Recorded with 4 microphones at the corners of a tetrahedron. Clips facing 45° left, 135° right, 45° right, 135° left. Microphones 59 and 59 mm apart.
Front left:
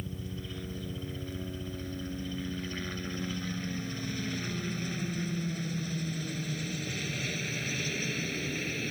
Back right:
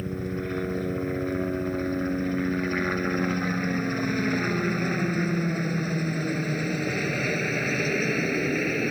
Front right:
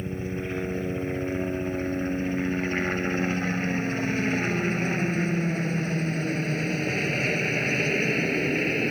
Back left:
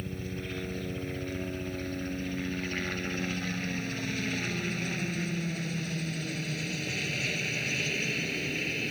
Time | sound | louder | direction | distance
0.0 | a helicopter | back right 11 dB, front right 6 dB | 105° right | ?